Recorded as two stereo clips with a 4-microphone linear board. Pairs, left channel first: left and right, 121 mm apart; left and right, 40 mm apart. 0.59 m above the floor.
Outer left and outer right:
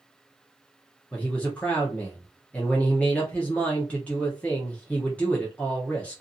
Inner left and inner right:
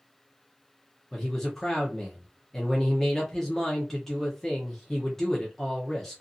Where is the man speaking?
10° left (ahead or behind), 0.7 m.